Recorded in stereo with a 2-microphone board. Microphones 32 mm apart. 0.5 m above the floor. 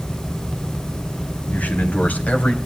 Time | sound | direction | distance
1.5 | a man speaking | 60° left (ahead or behind) | 3 m